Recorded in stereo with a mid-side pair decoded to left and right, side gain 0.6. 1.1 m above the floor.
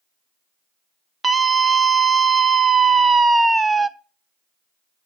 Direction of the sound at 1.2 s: 15° right.